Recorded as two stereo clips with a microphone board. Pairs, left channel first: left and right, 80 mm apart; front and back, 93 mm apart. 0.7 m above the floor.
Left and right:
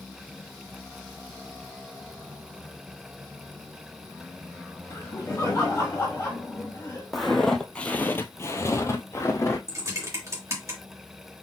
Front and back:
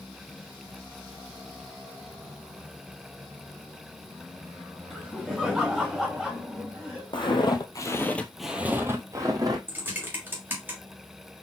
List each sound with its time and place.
4.9 s laughter: 90° left, 1.1 m
7.1 s footsteps: straight ahead, 1.3 m; by 9.6 s 140° left, 1.5 m
9.7 s typing on a keyboard: 120° right, 1.6 m